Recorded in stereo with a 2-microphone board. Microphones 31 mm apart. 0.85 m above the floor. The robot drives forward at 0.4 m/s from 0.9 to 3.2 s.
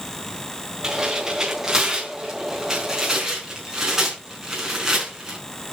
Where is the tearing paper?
30° right (ahead or behind), 4 m; by 5.4 s 25° right (ahead or behind), 5 m.